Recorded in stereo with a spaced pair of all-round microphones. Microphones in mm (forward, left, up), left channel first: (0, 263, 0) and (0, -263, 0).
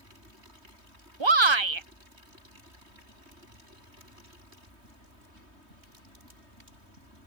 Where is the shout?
60° right (ahead or behind).